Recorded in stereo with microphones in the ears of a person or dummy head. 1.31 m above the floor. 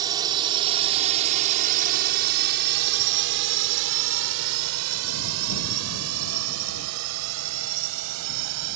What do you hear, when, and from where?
0.0 s a drone: 20° right (ahead or behind); by 8.8 s 75° right (ahead or behind)